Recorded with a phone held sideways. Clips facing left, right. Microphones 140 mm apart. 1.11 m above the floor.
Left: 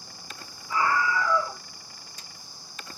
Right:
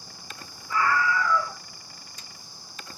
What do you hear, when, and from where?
0.7 s a scream: 20° left (ahead or behind), 3 m